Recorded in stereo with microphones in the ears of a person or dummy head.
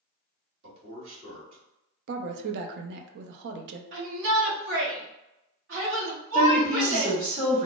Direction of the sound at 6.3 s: 30° right (ahead or behind).